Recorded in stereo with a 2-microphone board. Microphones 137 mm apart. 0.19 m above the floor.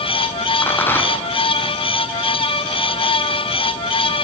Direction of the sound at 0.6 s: 15° left (ahead or behind).